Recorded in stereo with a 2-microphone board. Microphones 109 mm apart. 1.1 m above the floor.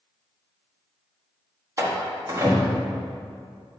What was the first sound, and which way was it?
A door slam, 30° right (ahead or behind).